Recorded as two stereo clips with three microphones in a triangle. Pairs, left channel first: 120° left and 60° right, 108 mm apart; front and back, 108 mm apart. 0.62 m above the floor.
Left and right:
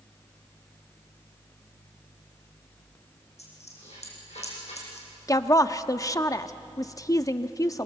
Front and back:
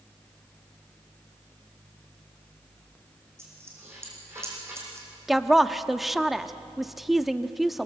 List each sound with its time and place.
3.4 s a dropped coin: 115° left, 7 m
5.3 s a woman speaking: 90° left, 0.8 m